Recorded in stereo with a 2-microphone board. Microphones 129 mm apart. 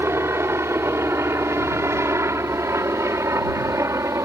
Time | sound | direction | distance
0.0 | a helicopter | 20° right (ahead or behind) | ?